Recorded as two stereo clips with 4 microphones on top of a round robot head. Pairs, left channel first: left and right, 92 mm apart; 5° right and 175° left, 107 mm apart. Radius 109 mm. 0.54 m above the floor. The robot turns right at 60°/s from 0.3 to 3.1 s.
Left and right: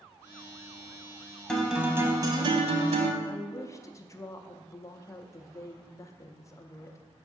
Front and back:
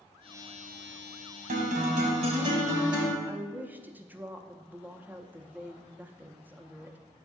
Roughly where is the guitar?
Behind.